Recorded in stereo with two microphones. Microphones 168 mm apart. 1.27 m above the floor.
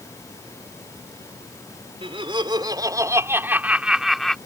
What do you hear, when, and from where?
2.0 s laughter: 35° right (ahead or behind); by 4.4 s 5° left (ahead or behind)